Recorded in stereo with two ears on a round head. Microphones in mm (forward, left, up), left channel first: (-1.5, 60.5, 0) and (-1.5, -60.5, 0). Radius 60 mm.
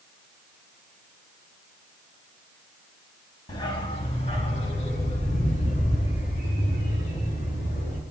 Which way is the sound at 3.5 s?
35° left (ahead or behind).